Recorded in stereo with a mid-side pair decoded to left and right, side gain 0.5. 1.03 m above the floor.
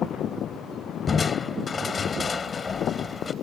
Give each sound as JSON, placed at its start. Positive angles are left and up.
{"t": 1.1, "sound": "crushing", "azimuth_deg": 30}